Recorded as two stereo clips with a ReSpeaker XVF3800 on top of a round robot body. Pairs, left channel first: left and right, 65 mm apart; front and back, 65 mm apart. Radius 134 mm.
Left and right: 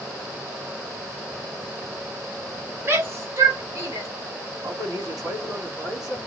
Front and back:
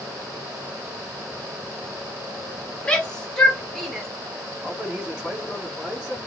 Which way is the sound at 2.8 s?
65° right.